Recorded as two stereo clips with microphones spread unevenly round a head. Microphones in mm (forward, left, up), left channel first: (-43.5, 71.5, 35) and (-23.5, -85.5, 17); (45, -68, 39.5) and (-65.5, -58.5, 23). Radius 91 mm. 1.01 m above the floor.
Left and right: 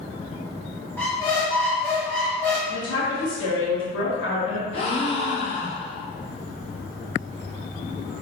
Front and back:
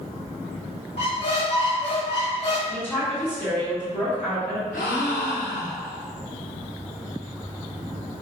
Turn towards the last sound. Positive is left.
turn(degrees=35)